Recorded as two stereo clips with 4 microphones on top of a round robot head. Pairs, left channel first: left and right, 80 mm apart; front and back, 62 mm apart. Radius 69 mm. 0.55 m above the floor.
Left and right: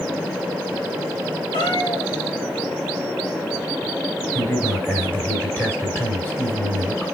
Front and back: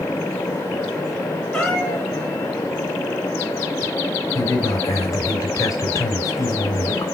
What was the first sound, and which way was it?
A cat meowing, 75° left.